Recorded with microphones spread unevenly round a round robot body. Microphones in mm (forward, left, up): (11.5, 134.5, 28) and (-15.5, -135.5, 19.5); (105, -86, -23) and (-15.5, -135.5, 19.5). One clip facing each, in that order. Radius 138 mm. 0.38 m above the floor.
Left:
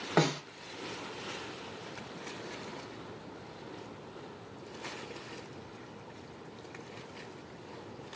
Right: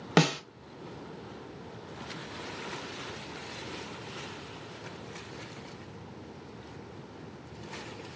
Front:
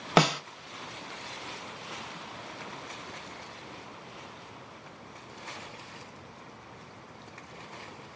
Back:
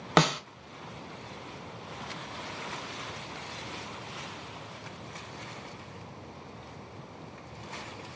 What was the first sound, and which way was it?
A snare drum, 55° right.